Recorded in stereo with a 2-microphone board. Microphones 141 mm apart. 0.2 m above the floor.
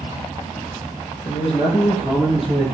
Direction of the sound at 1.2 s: 45° left (ahead or behind).